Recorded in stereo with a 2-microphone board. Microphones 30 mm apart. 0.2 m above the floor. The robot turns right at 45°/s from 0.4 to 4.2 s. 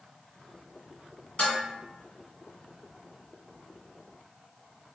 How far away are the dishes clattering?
About 1.3 m.